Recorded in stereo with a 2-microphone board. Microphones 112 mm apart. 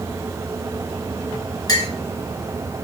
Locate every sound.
1.7 s a clink: 35° left (ahead or behind), 1.2 m